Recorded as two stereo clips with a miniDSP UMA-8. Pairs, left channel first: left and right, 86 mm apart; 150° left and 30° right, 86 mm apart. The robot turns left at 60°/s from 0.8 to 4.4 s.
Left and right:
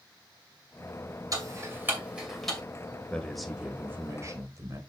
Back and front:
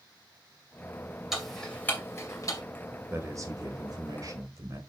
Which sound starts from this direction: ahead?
A man speaking, at 3.1 s.